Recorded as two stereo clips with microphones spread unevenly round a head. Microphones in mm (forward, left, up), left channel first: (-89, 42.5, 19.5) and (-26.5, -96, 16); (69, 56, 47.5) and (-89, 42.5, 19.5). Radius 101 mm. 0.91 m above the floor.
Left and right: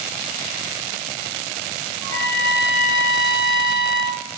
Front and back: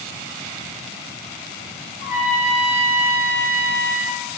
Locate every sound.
2.0 s a trumpet: 40° left, 3.5 m